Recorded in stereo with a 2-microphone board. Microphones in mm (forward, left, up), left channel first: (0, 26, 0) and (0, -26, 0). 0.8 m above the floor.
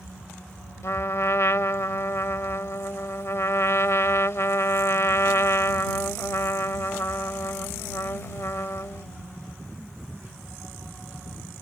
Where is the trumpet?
60° left (ahead or behind).